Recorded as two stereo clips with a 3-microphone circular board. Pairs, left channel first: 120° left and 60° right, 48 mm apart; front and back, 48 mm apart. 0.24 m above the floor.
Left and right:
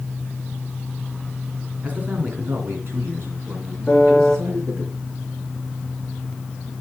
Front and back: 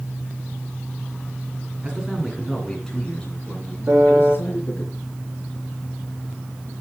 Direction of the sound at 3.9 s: 160° right.